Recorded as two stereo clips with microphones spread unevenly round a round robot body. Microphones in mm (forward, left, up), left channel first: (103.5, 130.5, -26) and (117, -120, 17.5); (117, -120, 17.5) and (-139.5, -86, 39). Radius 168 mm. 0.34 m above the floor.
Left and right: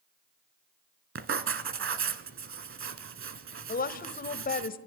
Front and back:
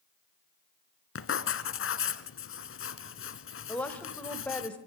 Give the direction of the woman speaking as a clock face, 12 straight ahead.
10 o'clock.